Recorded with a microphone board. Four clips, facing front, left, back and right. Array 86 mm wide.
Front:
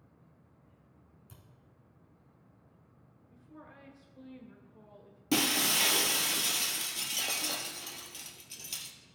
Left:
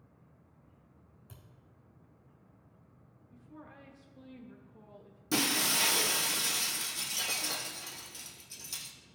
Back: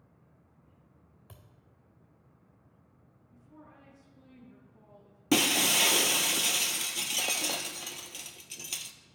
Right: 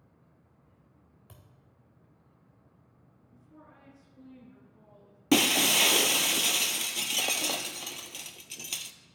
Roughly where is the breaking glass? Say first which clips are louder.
Right 7 dB, back 3 dB; behind right.